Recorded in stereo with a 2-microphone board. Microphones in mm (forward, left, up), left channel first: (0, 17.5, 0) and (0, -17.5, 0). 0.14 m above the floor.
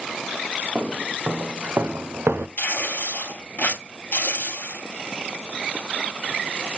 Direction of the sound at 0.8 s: 65° right (ahead or behind).